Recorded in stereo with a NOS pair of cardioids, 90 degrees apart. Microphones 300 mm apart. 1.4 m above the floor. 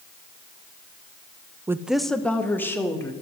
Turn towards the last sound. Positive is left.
turn(degrees=10)